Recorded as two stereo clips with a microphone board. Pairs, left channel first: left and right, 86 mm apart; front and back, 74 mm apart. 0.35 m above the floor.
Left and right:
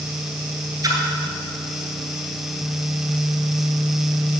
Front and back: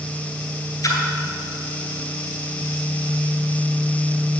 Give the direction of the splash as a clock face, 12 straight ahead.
1 o'clock.